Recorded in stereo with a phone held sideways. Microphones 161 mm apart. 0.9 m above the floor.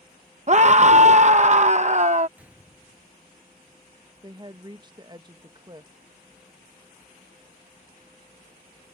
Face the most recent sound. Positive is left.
turn(degrees=-30)  # may be behind; listen again after turning